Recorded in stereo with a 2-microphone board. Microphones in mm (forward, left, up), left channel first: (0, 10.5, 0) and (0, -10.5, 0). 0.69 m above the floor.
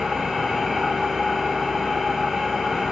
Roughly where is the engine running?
Right.